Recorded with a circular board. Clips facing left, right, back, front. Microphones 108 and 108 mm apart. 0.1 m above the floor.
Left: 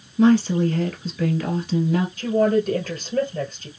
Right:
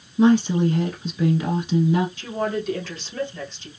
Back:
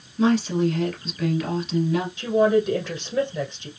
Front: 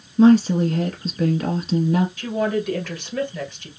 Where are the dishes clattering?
No dishes clattering in this recording.